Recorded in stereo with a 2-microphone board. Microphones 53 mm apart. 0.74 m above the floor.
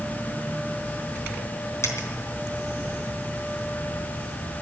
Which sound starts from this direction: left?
A dropped coin, at 1.8 s.